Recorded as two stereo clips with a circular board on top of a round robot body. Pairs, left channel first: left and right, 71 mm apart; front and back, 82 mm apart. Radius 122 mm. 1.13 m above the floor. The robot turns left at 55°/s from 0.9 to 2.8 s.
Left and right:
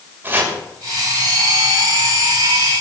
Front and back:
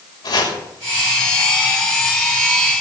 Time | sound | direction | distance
0.2 | chopping | 30° right | 6.5 m